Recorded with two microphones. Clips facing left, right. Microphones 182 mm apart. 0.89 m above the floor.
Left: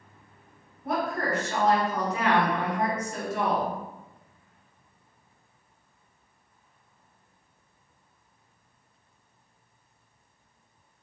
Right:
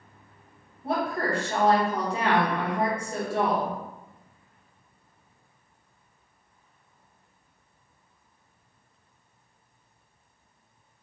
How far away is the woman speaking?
About 1.0 m.